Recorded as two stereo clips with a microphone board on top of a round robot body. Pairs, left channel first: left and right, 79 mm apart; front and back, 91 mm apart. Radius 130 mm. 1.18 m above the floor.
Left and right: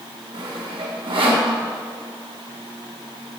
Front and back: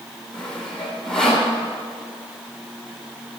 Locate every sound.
0.3 s sawing: 85° right, 1.9 m